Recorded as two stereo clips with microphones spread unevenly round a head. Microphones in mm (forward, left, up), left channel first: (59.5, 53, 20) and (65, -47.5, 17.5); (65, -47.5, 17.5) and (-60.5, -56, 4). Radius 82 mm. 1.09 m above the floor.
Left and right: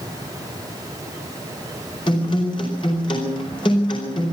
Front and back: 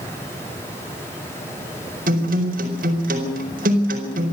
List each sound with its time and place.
2.1 s a guitar: 155° left, 4.5 m